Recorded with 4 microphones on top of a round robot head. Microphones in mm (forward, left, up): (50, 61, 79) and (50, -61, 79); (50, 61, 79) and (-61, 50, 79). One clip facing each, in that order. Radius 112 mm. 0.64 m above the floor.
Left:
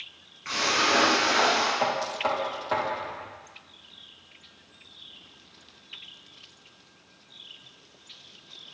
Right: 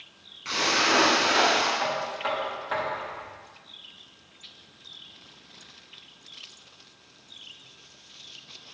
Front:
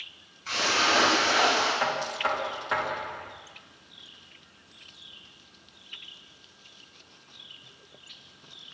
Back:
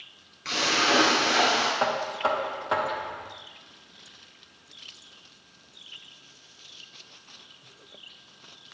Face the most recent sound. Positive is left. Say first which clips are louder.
# left 2 dB, back 3 dB
turn(degrees=130)